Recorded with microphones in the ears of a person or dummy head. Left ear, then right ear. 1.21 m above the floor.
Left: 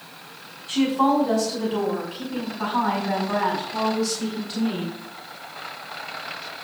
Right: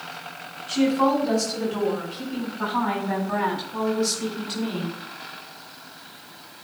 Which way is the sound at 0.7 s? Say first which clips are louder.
Left 1 dB; 20° left (ahead or behind).